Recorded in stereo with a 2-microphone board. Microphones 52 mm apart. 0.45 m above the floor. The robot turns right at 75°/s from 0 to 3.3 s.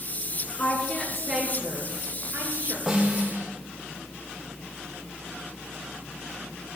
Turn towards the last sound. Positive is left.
turn(degrees=-135)